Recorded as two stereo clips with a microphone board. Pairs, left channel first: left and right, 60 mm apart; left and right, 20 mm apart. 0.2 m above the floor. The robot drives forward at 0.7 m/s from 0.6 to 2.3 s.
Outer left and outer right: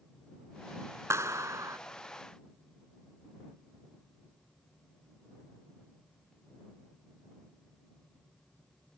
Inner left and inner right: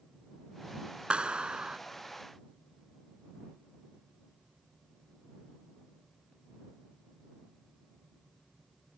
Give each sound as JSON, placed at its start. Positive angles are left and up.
{"t": 1.1, "sound": "a clap", "side_deg": -50}